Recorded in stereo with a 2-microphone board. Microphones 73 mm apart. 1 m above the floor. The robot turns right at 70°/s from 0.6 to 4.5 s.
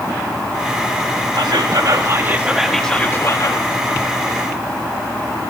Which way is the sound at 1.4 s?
95° right.